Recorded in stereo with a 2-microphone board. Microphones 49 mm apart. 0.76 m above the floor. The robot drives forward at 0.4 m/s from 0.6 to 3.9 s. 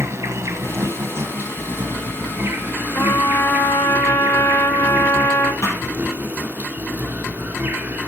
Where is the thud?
65° left (ahead or behind), 3.5 m.